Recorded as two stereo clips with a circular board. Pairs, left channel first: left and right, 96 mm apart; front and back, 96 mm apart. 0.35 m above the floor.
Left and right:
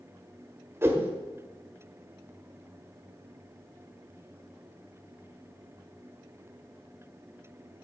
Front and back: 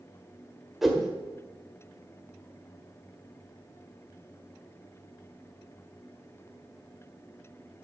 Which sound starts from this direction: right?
A whoosh, at 0.8 s.